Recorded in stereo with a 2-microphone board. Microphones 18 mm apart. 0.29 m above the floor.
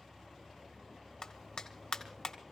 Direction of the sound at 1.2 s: 50° left (ahead or behind).